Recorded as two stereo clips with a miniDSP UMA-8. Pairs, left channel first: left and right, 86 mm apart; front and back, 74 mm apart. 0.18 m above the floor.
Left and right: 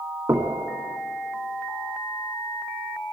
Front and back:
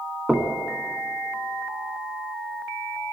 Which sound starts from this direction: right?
Knocking, at 0.3 s.